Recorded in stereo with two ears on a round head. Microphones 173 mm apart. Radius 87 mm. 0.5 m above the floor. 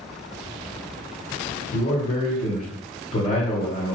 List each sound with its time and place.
1.7 s a man speaking: 40° left (ahead or behind), 1.9 m